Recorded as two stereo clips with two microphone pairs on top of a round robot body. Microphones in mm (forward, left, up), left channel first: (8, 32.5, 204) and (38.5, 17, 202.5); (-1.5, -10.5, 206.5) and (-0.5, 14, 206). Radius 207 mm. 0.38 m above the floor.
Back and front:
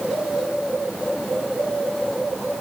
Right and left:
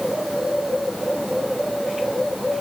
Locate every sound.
Only background noise.